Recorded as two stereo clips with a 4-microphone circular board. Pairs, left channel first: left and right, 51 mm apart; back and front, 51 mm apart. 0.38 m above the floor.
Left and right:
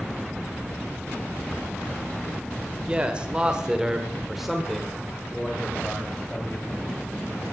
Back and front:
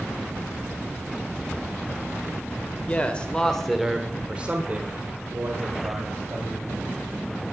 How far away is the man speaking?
About 1.4 m.